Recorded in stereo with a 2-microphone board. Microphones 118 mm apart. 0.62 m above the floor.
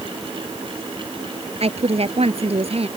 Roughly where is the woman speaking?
Right.